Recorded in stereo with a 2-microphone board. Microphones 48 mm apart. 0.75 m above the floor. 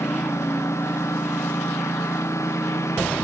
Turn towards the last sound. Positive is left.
turn(degrees=75)  # may be behind; listen again after turning